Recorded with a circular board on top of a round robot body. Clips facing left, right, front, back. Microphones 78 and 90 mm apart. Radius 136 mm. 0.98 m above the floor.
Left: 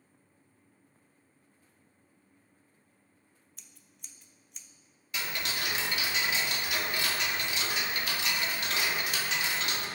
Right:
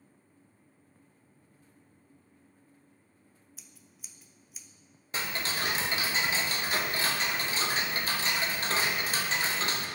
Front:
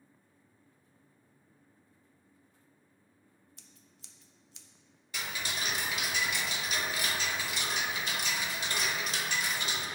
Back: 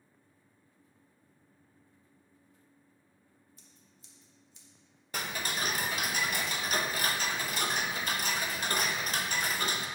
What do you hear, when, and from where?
3.6 s scissors: 5° right, 0.5 m
5.1 s ticking: 140° right, 0.7 m